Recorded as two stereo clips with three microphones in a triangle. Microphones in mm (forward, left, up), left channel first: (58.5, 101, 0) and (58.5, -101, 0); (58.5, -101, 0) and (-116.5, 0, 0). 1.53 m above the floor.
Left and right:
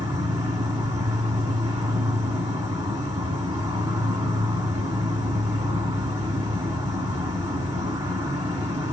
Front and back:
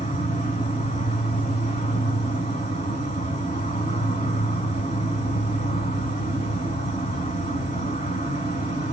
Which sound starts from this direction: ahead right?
An insect, at 0.0 s.